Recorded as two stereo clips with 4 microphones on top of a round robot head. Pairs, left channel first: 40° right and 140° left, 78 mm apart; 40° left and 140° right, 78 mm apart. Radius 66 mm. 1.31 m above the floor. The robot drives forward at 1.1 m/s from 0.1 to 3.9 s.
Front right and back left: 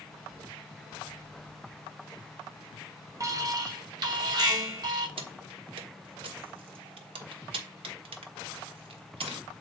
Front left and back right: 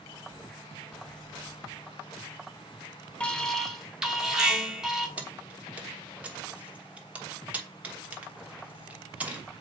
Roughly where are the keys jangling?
Behind left.